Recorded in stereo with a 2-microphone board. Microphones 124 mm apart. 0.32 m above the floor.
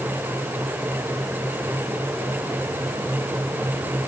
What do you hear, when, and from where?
Only background noise.